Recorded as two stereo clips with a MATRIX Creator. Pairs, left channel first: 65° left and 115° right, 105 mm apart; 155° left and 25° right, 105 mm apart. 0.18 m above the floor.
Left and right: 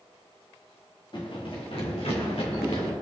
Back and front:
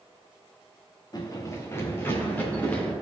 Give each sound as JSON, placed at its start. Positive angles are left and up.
{"t": 1.1, "sound": "running footsteps", "azimuth_deg": 110, "distance_m": 2.5}